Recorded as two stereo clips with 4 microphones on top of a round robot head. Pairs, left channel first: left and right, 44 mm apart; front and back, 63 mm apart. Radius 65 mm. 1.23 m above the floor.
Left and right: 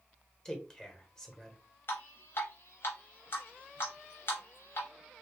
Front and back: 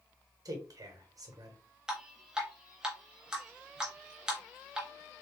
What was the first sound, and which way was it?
A man speaking, 165° left.